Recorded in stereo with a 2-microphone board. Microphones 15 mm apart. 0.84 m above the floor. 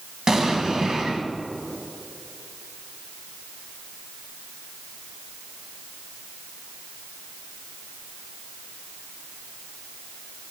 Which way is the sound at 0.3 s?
45° right (ahead or behind).